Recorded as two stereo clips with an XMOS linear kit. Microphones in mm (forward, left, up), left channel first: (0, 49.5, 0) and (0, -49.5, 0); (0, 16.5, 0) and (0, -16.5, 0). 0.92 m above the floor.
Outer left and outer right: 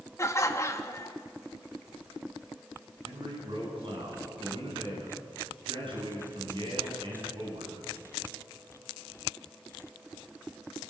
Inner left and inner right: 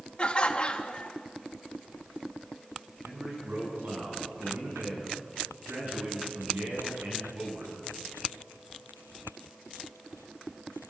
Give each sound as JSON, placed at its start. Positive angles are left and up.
{"t": 0.2, "sound": "laughter", "side_deg": 30, "distance_m": 1.6}
{"t": 3.0, "sound": "a man speaking", "side_deg": -60, "distance_m": 7.5}